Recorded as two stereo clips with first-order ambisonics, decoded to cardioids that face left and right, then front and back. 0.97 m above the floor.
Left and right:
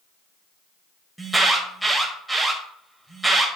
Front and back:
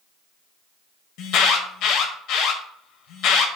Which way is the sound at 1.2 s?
5° right.